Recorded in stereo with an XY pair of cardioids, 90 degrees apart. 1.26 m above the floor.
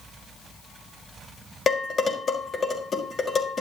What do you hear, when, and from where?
1.7 s dishes clattering: 50° left, 4.5 m